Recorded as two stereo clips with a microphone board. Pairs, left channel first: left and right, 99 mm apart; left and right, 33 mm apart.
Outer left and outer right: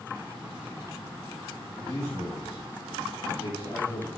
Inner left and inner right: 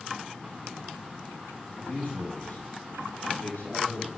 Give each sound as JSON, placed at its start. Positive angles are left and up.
{"t": 1.8, "sound": "a man speaking", "side_deg": 35, "distance_m": 1.8}